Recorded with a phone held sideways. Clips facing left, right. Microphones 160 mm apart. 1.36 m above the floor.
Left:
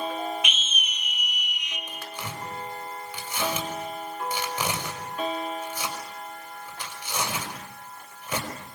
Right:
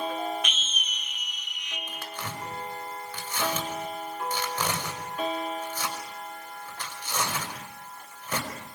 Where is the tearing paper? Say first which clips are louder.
Even; 10° left (ahead or behind), 5 m.